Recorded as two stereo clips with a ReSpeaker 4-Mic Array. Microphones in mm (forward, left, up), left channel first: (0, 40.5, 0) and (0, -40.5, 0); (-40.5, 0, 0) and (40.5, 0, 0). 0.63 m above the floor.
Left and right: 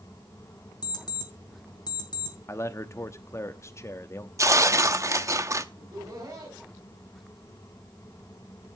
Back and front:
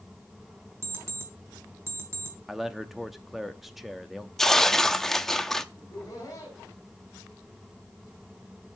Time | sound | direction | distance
0.8 | an alarm clock | 55° left | 3 m
2.5 | a man speaking | 85° left | 0.8 m
4.4 | tearing paper | 100° right | 0.7 m
5.8 | laughter | 135° right | 4.5 m